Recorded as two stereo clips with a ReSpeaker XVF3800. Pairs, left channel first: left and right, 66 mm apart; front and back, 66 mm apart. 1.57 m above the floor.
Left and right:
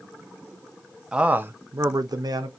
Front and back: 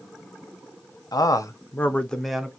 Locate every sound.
1.1 s a man speaking: 15° right, 0.6 m; by 2.5 s 95° right, 0.7 m